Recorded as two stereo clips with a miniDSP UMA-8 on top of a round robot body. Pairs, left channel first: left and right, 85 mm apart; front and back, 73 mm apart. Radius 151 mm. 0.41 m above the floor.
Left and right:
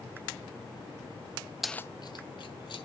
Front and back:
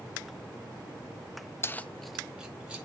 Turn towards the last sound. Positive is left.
turn(degrees=105)